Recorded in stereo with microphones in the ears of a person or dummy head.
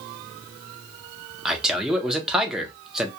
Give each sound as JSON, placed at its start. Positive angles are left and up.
{"t": 1.4, "sound": "a man speaking", "side_deg": -5, "distance_m": 0.7}